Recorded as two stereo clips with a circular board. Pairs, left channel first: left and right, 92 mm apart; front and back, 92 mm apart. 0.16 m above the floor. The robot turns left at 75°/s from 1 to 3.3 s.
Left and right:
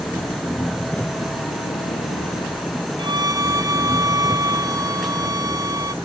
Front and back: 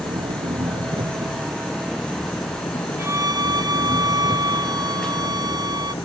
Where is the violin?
115° right; by 5.9 s 140° right.